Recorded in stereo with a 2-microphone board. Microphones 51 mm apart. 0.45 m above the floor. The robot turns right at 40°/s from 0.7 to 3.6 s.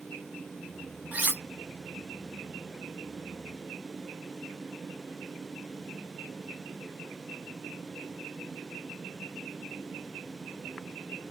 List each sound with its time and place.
1.1 s cutlery clinking: 30° right (ahead or behind), 0.9 m; by 1.4 s 40° right (ahead or behind), 0.9 m